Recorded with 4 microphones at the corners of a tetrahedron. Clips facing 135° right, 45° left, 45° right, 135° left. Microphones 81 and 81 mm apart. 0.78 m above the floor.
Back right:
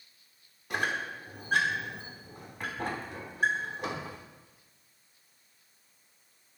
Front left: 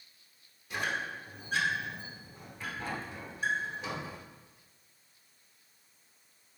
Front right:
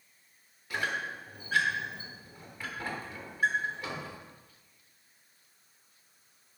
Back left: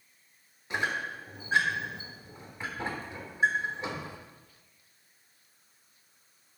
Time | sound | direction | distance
0.7 | a squeak | 160° right | 1.2 m